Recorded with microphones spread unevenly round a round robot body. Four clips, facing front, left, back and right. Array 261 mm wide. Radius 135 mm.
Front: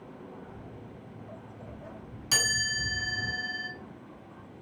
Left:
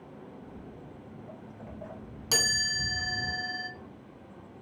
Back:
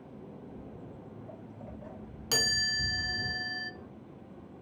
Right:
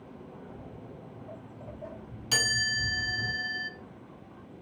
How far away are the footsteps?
About 1.8 m.